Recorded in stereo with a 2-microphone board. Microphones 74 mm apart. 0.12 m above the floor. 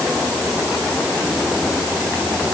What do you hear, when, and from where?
Only background noise.